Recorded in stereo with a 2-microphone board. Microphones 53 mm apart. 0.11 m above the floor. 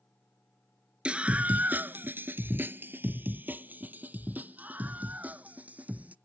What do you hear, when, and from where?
1.1 s a scream: 20° right (ahead or behind); by 6.1 s 25° right (ahead or behind)